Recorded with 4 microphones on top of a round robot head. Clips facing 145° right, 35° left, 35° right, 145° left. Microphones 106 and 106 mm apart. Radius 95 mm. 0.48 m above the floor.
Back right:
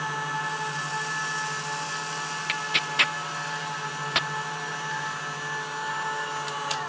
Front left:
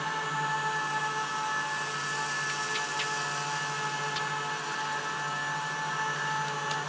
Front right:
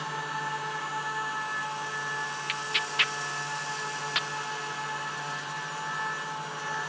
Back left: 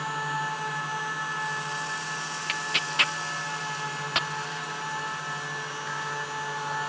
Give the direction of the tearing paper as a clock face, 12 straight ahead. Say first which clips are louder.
Back right 2 dB, back left 1 dB; 5 o'clock.